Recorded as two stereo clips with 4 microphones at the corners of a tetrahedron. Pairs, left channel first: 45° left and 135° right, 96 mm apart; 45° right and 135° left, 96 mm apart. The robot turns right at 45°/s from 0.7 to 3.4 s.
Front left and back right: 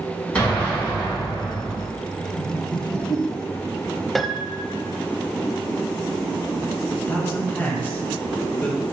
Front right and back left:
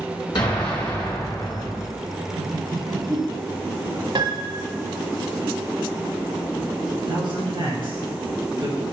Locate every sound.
0.3 s an explosion: 30° right, 3 m; by 1.9 s 25° left, 3 m
2.4 s laughter: 50° left, 2 m; by 4.0 s 95° left, 2 m
4.2 s a piano: 135° left, 0.7 m
6.9 s a man speaking: 110° left, 3 m